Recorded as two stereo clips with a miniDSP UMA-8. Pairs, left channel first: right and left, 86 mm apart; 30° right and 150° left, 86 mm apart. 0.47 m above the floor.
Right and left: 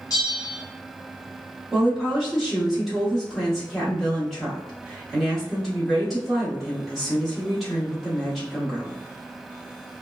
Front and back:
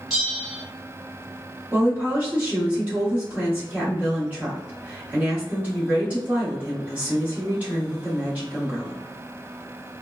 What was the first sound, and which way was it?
A bell, 125° right.